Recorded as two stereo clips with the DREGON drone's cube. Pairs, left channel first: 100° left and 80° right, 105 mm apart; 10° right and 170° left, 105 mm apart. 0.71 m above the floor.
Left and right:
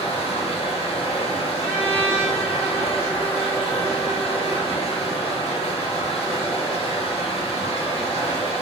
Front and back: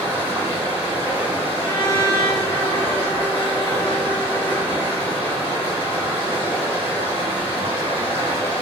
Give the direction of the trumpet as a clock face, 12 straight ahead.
11 o'clock.